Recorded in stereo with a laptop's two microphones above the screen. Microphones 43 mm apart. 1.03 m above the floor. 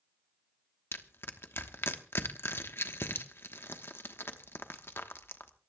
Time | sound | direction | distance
0.9 | crushing | 60° left (ahead or behind) | 1.1 m